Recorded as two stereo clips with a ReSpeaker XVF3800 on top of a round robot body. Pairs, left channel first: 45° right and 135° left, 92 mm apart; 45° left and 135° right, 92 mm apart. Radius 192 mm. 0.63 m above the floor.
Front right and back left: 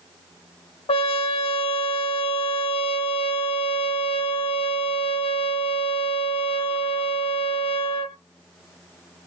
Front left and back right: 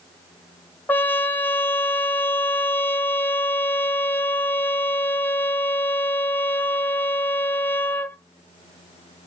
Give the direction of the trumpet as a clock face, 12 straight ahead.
1 o'clock.